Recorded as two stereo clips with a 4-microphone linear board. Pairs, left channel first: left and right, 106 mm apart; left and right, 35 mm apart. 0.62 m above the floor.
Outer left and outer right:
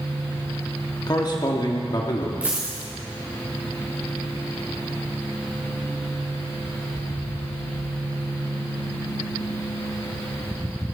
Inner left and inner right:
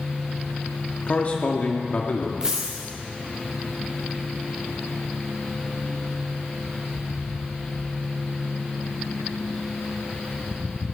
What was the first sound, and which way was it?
A man speaking, 40° left (ahead or behind).